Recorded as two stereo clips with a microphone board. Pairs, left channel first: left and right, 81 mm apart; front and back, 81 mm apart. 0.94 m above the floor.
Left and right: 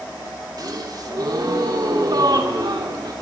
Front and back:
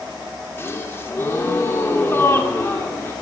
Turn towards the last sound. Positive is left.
turn(degrees=-60)